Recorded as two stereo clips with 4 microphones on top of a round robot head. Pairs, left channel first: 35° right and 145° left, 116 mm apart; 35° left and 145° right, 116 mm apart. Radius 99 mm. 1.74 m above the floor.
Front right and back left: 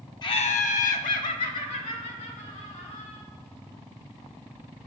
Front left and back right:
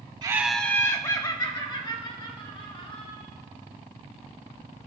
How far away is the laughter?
About 0.5 m.